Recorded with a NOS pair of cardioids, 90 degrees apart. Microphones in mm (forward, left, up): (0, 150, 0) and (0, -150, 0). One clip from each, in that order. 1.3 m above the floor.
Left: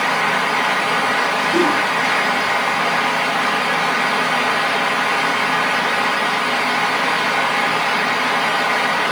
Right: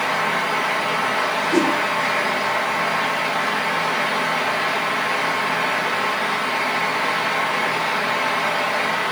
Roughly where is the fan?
Ahead.